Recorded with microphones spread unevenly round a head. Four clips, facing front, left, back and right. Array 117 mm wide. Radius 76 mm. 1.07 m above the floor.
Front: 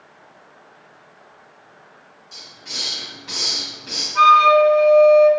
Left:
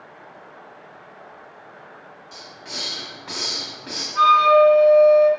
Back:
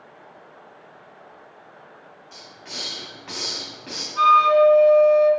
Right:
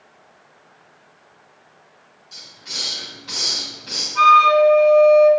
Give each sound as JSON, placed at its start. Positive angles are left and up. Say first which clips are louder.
{"t": 2.3, "sound": "a hiss", "louder": "left 3 dB, even", "azimuth_deg": 130, "distance_m": 1.8}
{"t": 4.2, "sound": "a flute", "louder": "right 1 dB, front 3 dB", "azimuth_deg": 5, "distance_m": 2.5}